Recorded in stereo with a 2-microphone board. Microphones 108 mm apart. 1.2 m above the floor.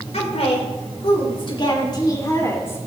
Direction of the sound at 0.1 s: 75° left (ahead or behind).